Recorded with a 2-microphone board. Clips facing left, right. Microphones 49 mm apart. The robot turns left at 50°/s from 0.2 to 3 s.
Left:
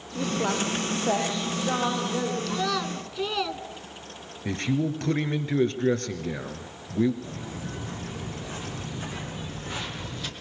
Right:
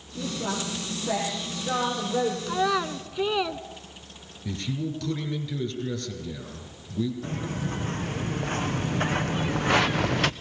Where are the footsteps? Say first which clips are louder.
Right 5 dB; 55° right (ahead or behind), 4 m; by 10.3 s 70° right (ahead or behind), 0.9 m.